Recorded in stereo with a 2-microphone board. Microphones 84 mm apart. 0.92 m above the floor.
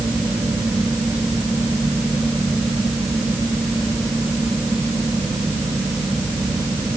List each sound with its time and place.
Only background noise.